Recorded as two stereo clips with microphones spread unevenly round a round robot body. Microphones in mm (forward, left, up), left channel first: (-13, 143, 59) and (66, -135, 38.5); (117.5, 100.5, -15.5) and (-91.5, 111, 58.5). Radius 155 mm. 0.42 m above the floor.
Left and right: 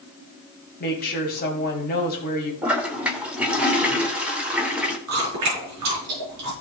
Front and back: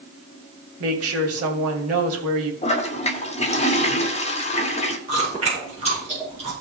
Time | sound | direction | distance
0.8 | a woman speaking | 165° left | 2.5 m
2.6 | a toilet flushing | 5° left | 1.7 m
5.1 | chewing | 110° right | 6 m